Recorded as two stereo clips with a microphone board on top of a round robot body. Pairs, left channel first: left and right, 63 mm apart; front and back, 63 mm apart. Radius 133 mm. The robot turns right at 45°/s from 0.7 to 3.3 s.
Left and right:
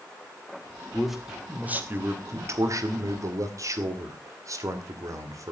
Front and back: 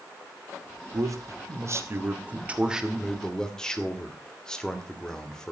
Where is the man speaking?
175° left, 2.5 m; by 5.5 s 80° right, 2.5 m.